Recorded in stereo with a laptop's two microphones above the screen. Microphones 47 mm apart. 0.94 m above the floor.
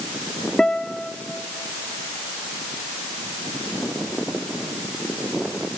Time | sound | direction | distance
0.6 | a guitar | 15° left (ahead or behind) | 1.1 m